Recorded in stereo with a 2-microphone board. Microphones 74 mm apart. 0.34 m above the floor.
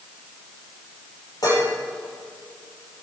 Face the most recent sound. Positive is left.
turn(degrees=60)  # may be behind; listen again after turning